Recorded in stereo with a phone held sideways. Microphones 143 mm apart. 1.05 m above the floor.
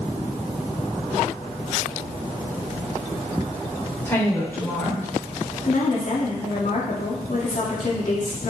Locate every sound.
4.0 s a woman speaking: 15° left (ahead or behind), 3 m
5.6 s a woman speaking: 60° left (ahead or behind), 2.5 m